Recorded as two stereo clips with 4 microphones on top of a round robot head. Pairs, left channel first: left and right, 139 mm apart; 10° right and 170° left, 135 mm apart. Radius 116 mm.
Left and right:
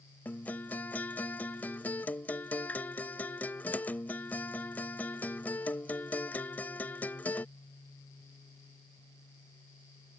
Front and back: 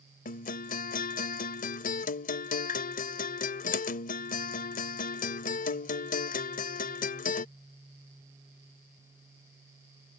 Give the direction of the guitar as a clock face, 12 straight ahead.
12 o'clock.